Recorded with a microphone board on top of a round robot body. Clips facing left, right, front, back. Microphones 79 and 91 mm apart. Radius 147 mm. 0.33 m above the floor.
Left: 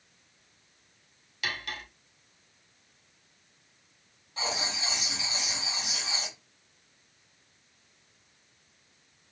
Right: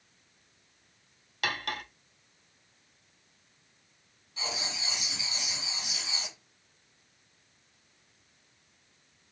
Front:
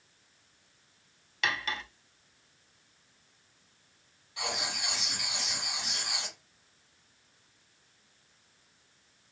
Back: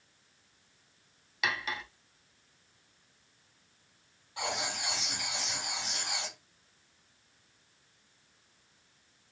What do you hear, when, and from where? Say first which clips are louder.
1.4 s cutlery clinking: right 3 dB, front 1 dB; 95° right, 1.0 m
4.4 s writing: left 4 dB, back 1 dB; 125° left, 3 m